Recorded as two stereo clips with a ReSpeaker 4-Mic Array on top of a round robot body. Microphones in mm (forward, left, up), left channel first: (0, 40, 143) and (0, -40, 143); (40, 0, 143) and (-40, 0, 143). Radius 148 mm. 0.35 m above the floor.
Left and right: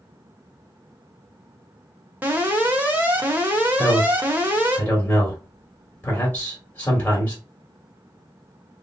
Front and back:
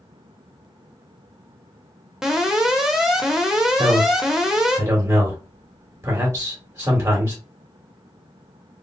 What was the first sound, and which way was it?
An alarm, 105° right.